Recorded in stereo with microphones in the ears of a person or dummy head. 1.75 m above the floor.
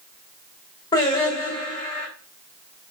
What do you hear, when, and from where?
0.9 s singing: 20° left (ahead or behind), 1.5 m